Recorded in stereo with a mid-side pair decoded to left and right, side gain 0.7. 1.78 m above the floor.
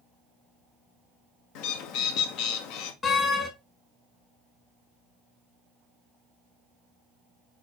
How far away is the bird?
About 1.3 m.